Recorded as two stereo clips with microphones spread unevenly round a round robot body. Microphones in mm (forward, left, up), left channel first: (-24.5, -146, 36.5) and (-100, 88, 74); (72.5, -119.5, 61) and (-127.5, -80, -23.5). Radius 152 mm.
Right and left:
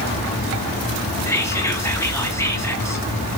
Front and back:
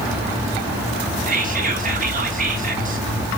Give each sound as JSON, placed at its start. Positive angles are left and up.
{"t": 1.3, "sound": "whispering", "azimuth_deg": -150, "distance_m": 3.5}